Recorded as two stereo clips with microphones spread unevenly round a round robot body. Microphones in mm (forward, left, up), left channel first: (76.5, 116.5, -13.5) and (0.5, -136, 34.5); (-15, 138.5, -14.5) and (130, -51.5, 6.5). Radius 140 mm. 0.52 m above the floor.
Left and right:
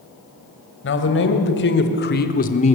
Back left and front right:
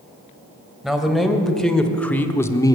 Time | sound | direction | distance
0.8 | a man speaking | 35° left | 3 m